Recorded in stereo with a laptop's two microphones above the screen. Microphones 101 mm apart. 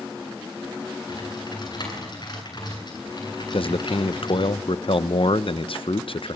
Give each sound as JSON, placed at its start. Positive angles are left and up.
{"t": 1.1, "sound": "typing on a keyboard", "side_deg": 45, "distance_m": 9.5}
{"t": 3.5, "sound": "a man speaking", "side_deg": 60, "distance_m": 0.7}